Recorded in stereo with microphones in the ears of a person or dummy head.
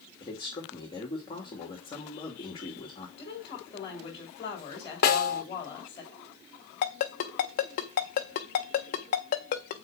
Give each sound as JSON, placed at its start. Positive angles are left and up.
{"t": 0.2, "sound": "a man speaking", "side_deg": 20, "distance_m": 2.5}
{"t": 3.2, "sound": "a woman speaking", "side_deg": 20, "distance_m": 3.0}
{"t": 5.0, "sound": "a snare drum", "side_deg": 45, "distance_m": 1.2}
{"t": 6.8, "sound": "a ringtone", "side_deg": 35, "distance_m": 0.8}